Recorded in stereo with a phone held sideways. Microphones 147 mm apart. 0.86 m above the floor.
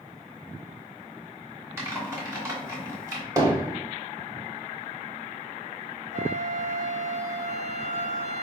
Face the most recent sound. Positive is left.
turn(degrees=-50)  # may be behind; listen again after turning